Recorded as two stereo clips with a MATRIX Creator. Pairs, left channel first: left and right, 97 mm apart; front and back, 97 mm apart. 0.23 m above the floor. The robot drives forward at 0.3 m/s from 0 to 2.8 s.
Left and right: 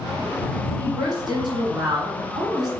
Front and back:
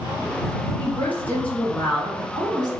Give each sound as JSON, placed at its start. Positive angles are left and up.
{"t": 0.8, "sound": "a woman speaking", "azimuth_deg": -65, "distance_m": 1.7}